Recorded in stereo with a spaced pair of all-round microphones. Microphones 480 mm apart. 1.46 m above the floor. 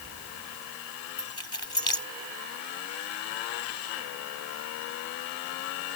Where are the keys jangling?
75° left (ahead or behind).